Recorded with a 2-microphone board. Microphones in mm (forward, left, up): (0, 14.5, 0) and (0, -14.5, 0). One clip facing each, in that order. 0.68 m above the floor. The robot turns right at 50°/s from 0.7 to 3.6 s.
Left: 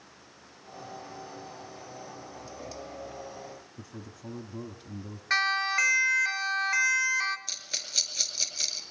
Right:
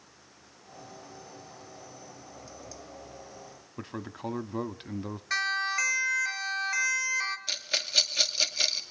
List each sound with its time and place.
3.8 s a man speaking: 50° right (ahead or behind), 1.1 m
5.3 s a siren: 30° left (ahead or behind), 2.5 m; by 7.4 s 10° left (ahead or behind), 1.9 m
7.5 s a rattle: 30° right (ahead or behind), 2 m